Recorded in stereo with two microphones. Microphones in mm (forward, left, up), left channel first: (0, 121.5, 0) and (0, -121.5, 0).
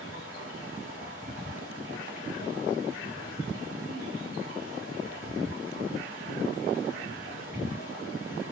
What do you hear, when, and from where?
0.0 s running water: 75° right (ahead or behind), 4.5 m